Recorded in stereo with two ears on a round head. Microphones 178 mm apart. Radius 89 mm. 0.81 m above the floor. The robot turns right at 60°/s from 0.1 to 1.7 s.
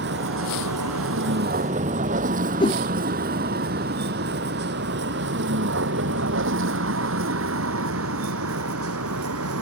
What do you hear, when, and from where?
0.0 s a vehicle: 60° right (ahead or behind); by 9.6 s 80° right
2.6 s a whoosh: 25° left (ahead or behind)